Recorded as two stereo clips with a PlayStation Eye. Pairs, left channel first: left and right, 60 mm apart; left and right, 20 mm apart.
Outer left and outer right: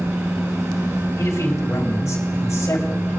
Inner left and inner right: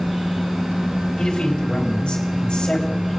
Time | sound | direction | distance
1.2 | a man speaking | 60° left (ahead or behind) | 4 m